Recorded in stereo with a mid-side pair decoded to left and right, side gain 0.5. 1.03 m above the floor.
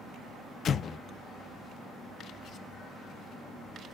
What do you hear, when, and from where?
0.7 s an explosion: 45° left, 0.5 m